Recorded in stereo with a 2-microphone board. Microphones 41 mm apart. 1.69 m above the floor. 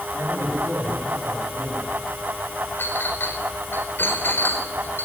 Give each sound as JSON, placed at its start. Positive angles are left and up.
{"t": 0.1, "sound": "a man speaking", "side_deg": -75, "distance_m": 9.5}
{"t": 2.8, "sound": "a clink", "side_deg": 60, "distance_m": 4.5}